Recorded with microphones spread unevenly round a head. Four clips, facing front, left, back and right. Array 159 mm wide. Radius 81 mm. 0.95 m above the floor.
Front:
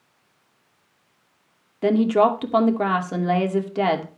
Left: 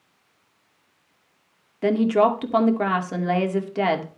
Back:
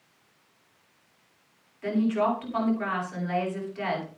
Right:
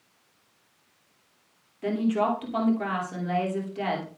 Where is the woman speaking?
35° left, 2.5 m.